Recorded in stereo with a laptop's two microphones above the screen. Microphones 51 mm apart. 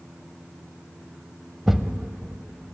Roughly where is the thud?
Centre.